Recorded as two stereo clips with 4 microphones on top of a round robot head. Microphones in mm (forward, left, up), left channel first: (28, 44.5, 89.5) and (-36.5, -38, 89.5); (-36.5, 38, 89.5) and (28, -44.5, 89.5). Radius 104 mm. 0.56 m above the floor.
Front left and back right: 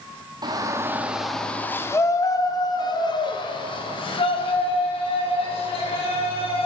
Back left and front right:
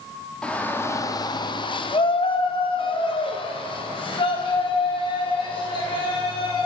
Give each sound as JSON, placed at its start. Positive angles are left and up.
{"t": 0.4, "sound": "a shout", "azimuth_deg": -155, "distance_m": 1.7}